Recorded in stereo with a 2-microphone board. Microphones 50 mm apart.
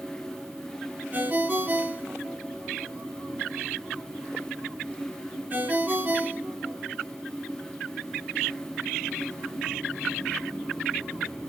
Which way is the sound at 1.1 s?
35° right (ahead or behind).